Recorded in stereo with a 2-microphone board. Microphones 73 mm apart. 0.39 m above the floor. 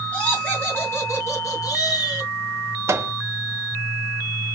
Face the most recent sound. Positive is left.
turn(degrees=-40)  # may be behind; listen again after turning